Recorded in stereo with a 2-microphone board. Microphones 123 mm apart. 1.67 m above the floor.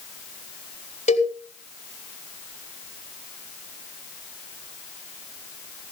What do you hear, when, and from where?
1.1 s a cowbell: 75° left (ahead or behind), 4 m